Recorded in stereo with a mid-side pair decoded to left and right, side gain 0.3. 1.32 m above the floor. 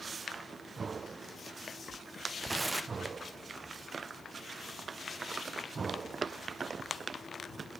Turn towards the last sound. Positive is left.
turn(degrees=-30)